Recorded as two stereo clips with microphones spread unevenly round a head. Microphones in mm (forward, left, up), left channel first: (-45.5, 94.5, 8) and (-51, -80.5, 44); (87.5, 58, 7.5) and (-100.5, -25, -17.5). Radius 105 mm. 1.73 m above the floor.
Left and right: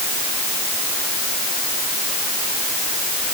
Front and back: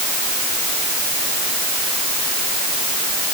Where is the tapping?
I don't hear tapping.